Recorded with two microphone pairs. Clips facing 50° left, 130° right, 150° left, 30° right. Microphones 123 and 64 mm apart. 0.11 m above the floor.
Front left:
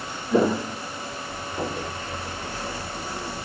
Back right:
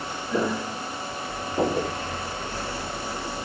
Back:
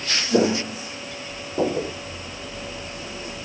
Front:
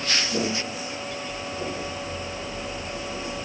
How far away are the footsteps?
About 1.1 m.